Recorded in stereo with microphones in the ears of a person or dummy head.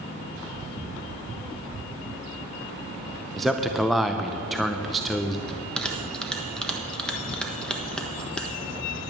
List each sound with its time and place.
3.4 s a man speaking: 5° right (ahead or behind), 0.6 m
5.5 s a bell: 10° left (ahead or behind), 1.3 m